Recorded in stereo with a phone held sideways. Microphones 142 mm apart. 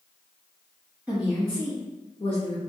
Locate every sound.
1.1 s a woman speaking: 10° right (ahead or behind), 0.8 m; by 2.6 s 50° left (ahead or behind), 0.8 m